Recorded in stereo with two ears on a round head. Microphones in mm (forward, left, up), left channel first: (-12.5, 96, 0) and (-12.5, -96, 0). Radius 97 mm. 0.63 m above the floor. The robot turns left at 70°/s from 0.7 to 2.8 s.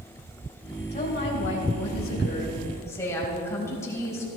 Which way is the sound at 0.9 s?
145° left.